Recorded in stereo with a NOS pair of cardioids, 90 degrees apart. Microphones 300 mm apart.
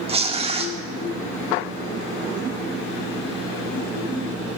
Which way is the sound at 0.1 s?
20° right.